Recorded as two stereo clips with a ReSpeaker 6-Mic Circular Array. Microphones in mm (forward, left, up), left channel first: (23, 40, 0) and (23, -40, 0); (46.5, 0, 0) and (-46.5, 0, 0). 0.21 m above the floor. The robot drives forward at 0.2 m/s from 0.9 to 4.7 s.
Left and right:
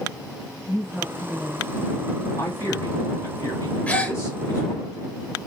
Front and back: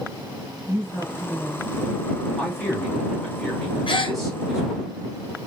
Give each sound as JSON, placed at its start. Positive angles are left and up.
{"t": 0.7, "sound": "a woman speaking", "azimuth_deg": 155, "distance_m": 1.1}
{"t": 2.4, "sound": "a man speaking", "azimuth_deg": 75, "distance_m": 2.0}
{"t": 3.9, "sound": "a gasp", "azimuth_deg": 20, "distance_m": 0.5}